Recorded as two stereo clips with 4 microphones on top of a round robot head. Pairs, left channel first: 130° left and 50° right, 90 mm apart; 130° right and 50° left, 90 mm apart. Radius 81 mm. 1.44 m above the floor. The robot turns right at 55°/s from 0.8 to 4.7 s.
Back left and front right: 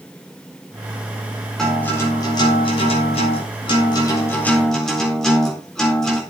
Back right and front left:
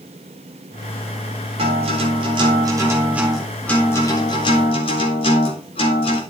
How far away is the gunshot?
I don't hear a gunshot.